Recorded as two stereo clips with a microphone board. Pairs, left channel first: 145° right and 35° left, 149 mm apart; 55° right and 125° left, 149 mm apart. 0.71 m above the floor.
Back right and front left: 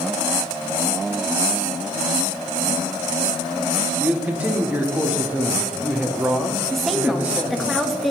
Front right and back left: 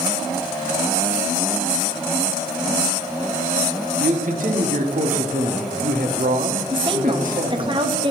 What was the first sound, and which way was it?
A man speaking, 110° left.